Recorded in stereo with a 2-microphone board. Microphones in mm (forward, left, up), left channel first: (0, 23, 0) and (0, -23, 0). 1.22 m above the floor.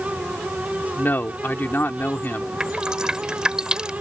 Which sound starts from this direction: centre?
Dripping, at 2.6 s.